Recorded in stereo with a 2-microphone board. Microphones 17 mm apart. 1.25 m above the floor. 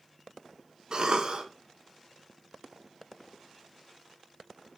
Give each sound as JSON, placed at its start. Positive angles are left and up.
{"t": 0.9, "sound": "a cough", "side_deg": -50, "distance_m": 0.7}